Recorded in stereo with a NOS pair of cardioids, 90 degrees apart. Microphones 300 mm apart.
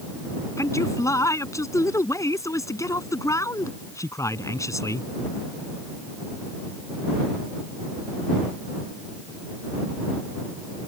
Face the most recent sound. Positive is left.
turn(degrees=10)